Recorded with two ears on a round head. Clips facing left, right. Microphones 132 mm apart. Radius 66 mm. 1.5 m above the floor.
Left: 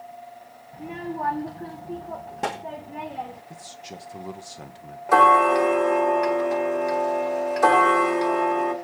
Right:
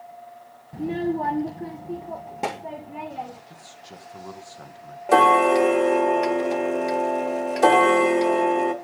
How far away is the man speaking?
About 1.3 m.